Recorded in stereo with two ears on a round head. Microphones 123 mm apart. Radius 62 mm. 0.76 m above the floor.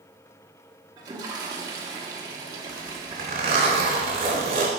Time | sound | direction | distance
1.0 | a toilet flushing | 25° right (ahead or behind) | 1.5 m
2.7 | a zipper | 50° right (ahead or behind) | 3 m